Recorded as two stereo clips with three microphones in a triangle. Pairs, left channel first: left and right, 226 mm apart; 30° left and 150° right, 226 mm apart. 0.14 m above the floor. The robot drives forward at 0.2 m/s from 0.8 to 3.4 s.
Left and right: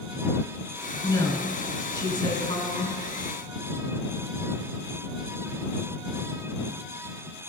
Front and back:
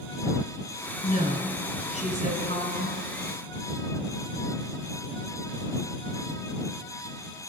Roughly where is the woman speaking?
Ahead left.